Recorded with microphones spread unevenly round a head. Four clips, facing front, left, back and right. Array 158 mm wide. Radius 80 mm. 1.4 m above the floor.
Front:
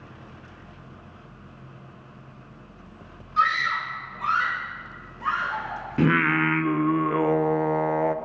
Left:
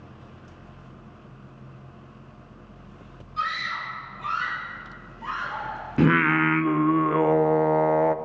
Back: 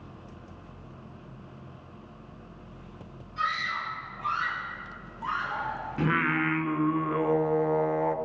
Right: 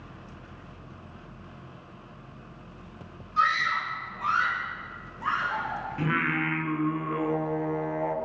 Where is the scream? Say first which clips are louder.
Right 4 dB, front 8 dB; 10° right, 6 m; by 6.4 s 20° right, 10 m.